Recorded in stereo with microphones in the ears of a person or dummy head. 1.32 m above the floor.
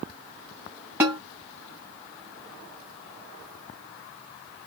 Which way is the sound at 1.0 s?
15° right (ahead or behind).